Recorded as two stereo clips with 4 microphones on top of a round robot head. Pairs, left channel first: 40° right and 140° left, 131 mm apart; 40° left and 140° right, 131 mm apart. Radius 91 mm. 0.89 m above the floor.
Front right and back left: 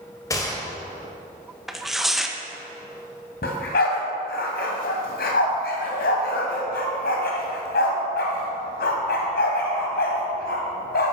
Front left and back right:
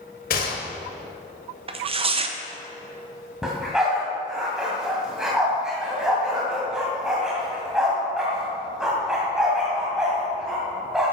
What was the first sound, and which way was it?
A gunshot, 25° left.